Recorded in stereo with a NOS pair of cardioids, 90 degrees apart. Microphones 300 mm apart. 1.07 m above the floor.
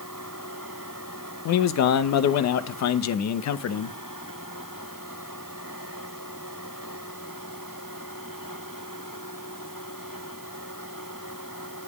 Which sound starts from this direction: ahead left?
A man speaking, at 1.4 s.